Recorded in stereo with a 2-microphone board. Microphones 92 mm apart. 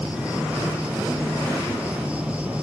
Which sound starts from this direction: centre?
An insect, at 0.0 s.